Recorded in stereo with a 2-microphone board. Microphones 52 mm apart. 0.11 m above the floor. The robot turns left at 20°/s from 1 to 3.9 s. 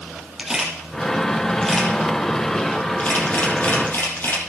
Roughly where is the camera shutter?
Centre.